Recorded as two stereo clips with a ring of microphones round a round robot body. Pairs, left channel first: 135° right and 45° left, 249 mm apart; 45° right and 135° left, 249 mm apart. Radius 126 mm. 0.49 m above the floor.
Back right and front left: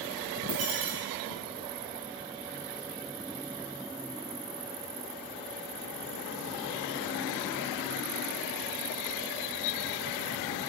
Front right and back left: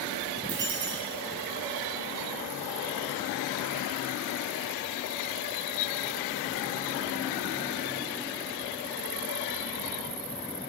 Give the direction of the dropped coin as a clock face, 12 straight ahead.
9 o'clock.